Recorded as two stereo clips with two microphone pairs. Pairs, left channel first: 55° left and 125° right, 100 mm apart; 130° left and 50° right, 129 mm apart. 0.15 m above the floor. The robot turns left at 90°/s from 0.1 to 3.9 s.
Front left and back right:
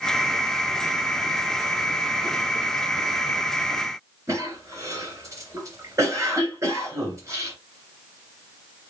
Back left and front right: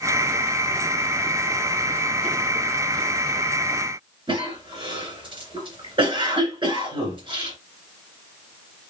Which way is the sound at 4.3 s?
80° right.